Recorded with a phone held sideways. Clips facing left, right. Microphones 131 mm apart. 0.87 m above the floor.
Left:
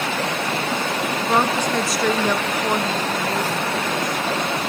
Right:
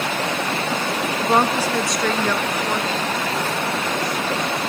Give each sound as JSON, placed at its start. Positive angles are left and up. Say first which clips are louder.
{"t": 1.2, "sound": "a woman speaking", "louder": "right 2 dB", "side_deg": -20, "distance_m": 0.9}